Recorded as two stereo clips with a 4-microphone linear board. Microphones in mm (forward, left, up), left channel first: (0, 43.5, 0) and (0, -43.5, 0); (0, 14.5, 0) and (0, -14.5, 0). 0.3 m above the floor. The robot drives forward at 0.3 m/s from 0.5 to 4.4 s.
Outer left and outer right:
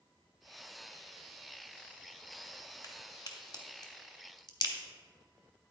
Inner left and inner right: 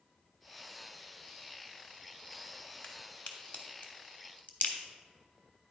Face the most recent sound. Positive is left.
turn(degrees=50)  # may be behind; listen again after turning